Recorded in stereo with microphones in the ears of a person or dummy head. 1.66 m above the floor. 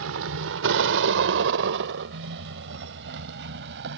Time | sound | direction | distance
0.0 | a vehicle | 70° right (ahead or behind) | ?